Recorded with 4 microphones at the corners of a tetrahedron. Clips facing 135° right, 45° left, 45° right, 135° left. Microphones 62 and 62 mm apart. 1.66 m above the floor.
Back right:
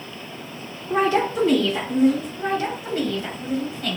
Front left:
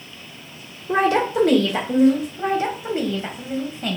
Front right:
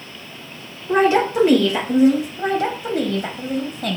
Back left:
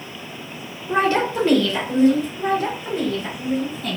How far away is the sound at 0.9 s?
About 1.9 m.